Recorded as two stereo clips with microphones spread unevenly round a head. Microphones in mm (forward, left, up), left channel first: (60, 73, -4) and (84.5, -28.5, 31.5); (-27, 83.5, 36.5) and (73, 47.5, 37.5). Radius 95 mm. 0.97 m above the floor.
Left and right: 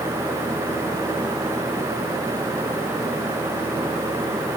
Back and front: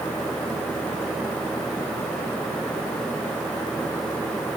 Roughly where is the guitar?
I don't hear a guitar.